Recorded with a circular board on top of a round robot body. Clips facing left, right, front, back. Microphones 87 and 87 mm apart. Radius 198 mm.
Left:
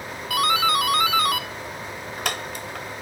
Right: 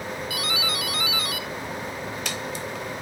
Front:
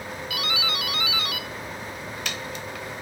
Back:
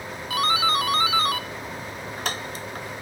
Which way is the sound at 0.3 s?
130° left.